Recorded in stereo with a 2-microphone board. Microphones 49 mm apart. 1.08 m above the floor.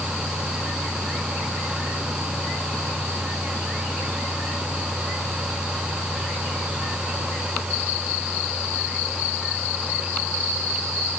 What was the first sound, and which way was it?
Only background noise.